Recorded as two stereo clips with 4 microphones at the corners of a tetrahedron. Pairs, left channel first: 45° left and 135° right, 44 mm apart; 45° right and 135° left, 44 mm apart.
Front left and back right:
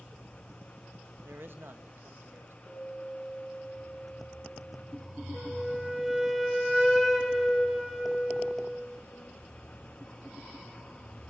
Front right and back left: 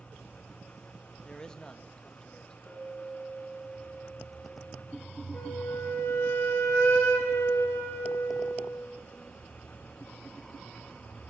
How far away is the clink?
About 7.5 m.